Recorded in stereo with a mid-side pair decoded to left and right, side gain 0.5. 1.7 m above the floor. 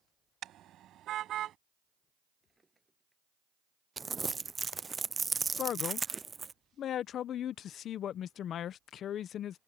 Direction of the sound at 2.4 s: 20° right.